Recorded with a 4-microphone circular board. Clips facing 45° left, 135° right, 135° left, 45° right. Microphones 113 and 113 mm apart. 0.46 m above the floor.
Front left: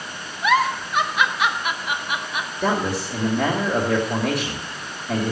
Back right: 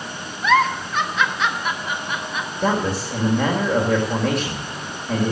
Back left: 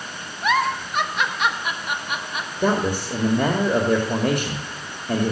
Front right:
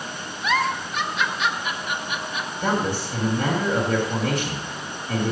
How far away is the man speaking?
About 2 m.